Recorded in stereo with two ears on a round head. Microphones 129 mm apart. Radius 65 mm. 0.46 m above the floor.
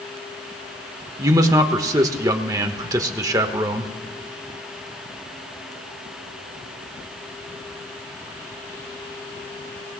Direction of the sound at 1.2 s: 25° right (ahead or behind).